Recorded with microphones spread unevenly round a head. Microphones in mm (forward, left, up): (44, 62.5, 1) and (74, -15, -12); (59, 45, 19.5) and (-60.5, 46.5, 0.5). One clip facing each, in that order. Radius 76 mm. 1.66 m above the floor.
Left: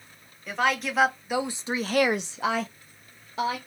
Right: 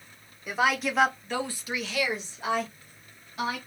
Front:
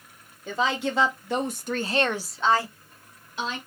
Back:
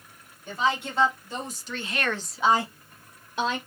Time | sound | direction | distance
0.5 | a woman speaking | 15° left | 1.3 m